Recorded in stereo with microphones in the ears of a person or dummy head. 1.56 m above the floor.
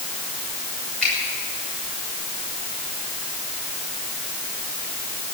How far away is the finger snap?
About 6.5 m.